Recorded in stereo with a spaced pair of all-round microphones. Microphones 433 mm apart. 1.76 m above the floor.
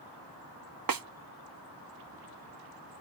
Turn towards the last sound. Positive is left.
turn(degrees=-50)  # may be behind; listen again after turning